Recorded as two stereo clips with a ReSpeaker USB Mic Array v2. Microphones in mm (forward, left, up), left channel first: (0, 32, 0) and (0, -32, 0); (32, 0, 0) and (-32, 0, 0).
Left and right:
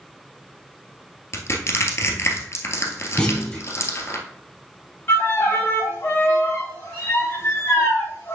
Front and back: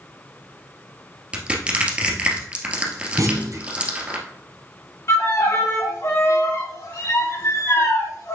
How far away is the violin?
About 4 m.